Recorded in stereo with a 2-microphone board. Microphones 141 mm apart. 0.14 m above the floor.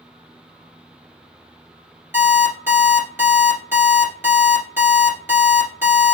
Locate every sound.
2.1 s an alarm clock: 20° right (ahead or behind), 1.5 m